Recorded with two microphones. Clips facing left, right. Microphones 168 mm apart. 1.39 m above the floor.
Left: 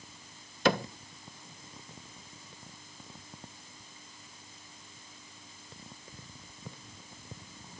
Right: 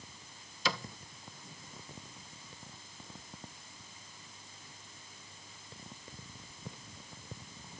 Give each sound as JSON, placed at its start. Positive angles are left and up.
{"t": 0.7, "sound": "a cupboard door", "side_deg": 55}